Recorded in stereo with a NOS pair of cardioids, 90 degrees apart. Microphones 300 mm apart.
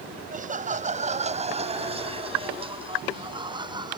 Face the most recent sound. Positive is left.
turn(degrees=-15)